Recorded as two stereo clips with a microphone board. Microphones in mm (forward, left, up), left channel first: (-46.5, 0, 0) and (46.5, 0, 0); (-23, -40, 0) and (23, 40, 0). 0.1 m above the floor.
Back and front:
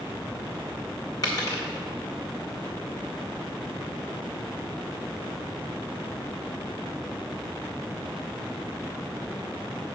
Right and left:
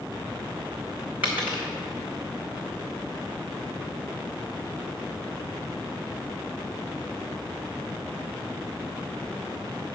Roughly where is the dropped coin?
Behind left.